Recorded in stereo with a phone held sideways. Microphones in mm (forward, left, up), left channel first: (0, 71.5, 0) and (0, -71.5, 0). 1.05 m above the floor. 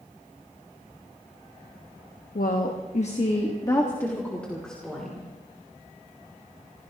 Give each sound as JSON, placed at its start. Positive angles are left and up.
{"t": 2.4, "sound": "a woman speaking", "side_deg": 80, "distance_m": 1.3}